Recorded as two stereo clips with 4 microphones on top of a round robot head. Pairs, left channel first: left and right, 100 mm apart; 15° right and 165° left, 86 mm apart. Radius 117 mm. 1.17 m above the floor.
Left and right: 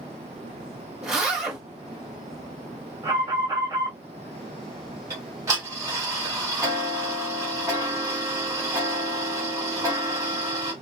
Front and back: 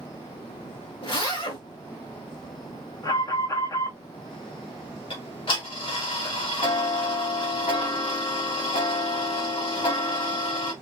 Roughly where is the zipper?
Ahead.